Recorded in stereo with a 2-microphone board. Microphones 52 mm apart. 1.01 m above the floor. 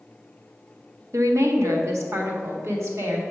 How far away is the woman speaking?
About 0.8 m.